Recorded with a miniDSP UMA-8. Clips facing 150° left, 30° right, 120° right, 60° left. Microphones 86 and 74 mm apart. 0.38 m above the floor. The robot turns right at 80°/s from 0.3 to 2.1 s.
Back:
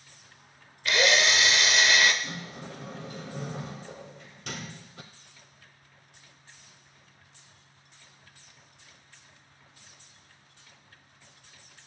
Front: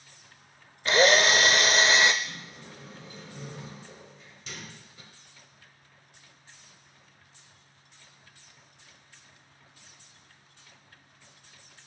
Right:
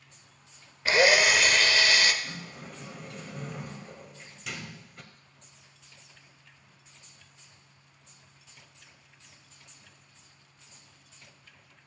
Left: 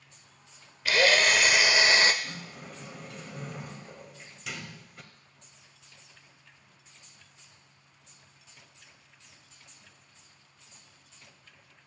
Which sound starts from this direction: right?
A drill, at 0.8 s.